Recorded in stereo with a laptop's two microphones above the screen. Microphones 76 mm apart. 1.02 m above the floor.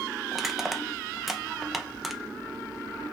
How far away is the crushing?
About 0.5 m.